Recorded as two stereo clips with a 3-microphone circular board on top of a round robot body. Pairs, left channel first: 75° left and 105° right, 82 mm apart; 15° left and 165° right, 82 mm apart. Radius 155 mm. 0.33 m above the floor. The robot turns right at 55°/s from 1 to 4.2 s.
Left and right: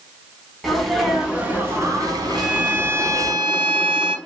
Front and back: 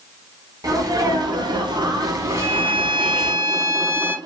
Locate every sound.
0.6 s a sneeze: 165° left, 1.4 m; by 3.3 s 70° right, 1.4 m
2.3 s a violin: 165° left, 0.8 m; by 4.2 s 95° right, 0.8 m